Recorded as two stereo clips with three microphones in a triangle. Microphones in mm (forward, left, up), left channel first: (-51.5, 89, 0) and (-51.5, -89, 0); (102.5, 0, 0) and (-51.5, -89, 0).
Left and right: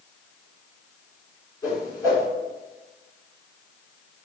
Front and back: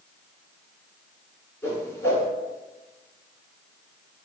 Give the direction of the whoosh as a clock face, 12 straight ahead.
9 o'clock.